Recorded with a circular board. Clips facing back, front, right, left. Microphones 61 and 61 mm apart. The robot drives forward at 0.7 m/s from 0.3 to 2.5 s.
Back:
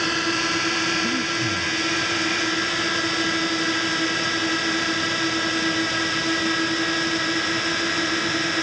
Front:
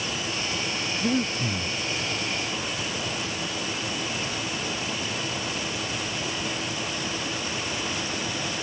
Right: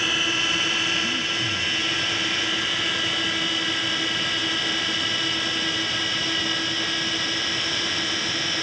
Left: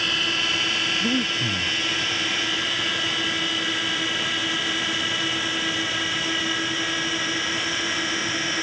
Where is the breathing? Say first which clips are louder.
Back 2 dB, left 2 dB; 70° left.